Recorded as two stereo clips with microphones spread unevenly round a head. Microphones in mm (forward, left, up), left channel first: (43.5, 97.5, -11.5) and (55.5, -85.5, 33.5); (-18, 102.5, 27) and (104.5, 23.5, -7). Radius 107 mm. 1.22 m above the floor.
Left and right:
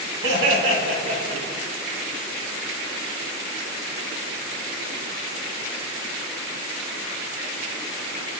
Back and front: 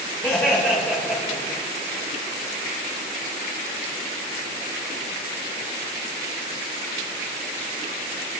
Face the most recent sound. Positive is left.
turn(degrees=-125)